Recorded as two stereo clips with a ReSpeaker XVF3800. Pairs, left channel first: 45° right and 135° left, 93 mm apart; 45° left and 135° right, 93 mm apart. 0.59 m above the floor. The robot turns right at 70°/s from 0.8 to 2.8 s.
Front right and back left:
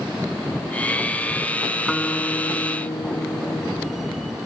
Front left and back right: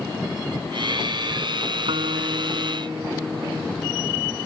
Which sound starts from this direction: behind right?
A guitar, at 1.9 s.